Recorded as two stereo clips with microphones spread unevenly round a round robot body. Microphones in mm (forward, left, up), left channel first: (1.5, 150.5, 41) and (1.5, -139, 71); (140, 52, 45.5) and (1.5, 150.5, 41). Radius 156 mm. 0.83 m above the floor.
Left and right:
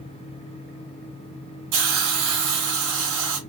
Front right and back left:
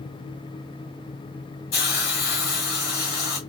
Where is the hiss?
75° right, 2 m.